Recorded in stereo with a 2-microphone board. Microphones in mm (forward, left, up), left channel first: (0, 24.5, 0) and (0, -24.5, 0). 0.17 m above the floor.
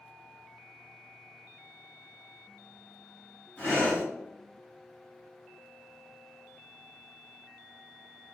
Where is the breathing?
25° left (ahead or behind), 1.6 m.